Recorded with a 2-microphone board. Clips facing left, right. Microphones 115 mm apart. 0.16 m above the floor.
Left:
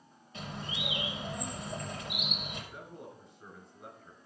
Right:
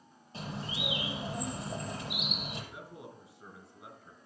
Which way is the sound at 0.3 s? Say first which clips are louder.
Right 2 dB; 35° right (ahead or behind).